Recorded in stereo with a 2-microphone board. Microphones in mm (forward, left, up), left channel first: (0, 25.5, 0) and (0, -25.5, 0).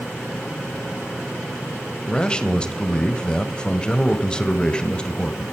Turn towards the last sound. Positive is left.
turn(degrees=15)  # may be behind; listen again after turning